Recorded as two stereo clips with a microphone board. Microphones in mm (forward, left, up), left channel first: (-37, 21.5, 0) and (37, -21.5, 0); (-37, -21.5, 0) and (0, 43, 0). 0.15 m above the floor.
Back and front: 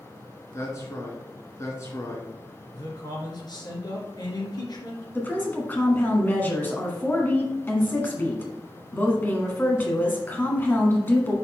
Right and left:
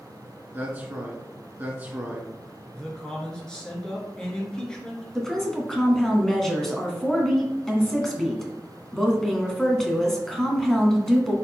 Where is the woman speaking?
165° left, 1.6 m.